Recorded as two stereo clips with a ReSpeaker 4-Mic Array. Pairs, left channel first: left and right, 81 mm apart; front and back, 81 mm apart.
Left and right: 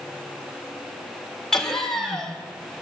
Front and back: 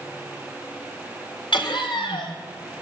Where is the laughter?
5° left, 4.5 m.